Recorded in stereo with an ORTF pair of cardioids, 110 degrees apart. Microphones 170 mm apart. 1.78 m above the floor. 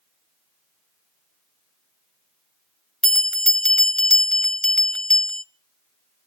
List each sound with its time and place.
3.0 s a bell: 5° left, 1.2 m